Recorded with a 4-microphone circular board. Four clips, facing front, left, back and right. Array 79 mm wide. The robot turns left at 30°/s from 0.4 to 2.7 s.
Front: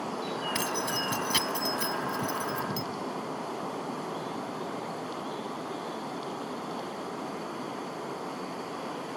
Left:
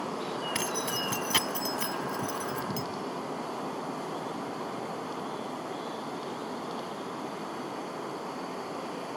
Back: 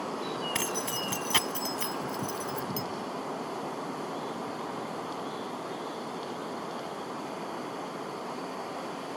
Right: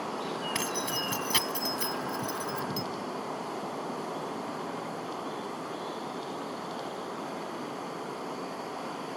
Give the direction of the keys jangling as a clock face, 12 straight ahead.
6 o'clock.